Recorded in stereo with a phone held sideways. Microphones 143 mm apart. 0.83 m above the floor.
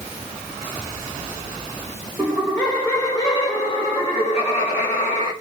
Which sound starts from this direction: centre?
Laughter, at 2.2 s.